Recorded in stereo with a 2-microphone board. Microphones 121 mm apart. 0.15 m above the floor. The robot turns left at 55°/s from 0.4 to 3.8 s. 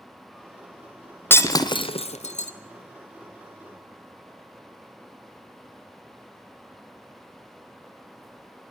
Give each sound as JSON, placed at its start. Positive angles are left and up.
{"t": 1.3, "sound": "breaking glass", "side_deg": 15, "distance_m": 1.1}